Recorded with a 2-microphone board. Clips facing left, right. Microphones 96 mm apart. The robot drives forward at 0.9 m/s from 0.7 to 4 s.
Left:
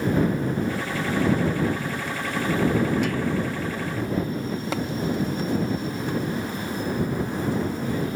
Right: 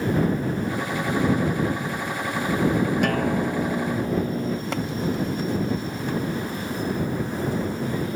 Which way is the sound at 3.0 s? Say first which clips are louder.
Right 2 dB; 60° right (ahead or behind).